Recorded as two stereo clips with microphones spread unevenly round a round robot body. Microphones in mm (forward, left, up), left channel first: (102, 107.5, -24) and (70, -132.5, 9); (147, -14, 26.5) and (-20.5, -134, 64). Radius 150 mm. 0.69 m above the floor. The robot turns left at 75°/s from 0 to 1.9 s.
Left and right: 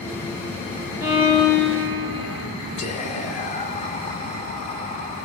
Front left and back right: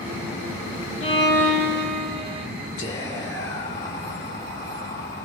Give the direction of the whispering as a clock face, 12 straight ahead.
9 o'clock.